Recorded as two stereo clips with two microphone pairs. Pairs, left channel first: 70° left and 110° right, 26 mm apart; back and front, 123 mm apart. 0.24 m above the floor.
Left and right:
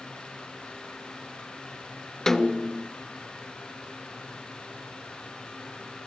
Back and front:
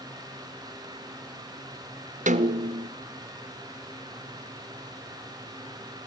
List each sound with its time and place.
2.3 s a snare drum: 5° right, 1.0 m